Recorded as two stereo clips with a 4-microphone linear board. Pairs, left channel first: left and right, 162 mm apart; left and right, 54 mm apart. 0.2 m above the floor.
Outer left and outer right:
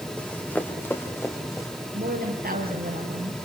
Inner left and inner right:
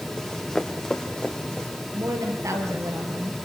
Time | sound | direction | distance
0.2 | running footsteps | 10° left (ahead or behind) | 3 m
1.9 | a woman speaking | 70° right (ahead or behind) | 5.5 m